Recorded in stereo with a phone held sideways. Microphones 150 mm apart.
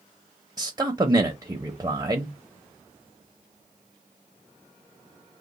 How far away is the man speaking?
About 0.7 m.